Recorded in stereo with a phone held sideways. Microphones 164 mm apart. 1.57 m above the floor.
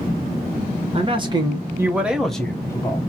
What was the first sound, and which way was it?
A man speaking, 35° right (ahead or behind).